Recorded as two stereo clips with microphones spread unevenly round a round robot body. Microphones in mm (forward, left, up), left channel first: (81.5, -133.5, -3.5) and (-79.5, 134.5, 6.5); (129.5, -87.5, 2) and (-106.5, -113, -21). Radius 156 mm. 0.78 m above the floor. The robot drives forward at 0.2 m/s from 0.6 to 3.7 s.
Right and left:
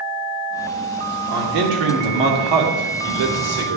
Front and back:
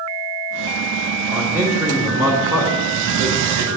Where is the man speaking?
100° left, 1.8 m; by 3.8 s 115° left, 2.0 m.